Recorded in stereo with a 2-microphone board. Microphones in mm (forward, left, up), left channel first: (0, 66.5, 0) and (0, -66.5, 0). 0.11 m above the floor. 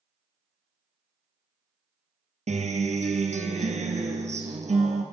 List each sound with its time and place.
2.5 s a guitar: 60° right (ahead or behind), 1.3 m